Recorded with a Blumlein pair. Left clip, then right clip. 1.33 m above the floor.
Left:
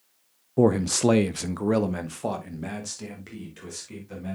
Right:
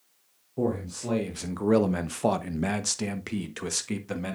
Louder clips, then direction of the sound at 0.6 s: Left 9 dB; 65° left.